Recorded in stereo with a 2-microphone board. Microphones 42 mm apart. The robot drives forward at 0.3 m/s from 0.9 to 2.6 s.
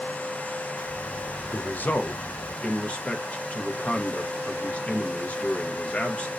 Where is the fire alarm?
I don't hear a fire alarm.